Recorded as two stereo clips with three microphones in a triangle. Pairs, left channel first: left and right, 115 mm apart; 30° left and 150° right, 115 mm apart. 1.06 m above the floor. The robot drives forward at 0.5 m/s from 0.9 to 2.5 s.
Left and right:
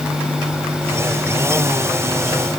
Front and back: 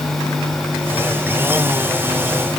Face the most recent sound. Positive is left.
No sound to turn to.